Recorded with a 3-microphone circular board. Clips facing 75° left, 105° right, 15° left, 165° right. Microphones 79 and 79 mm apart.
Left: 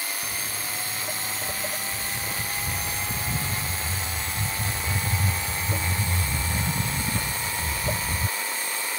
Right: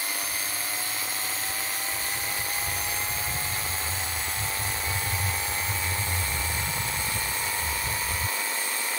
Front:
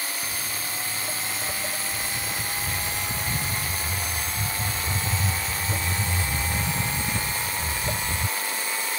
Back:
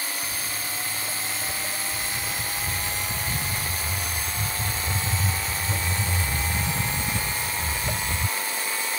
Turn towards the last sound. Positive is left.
turn(degrees=100)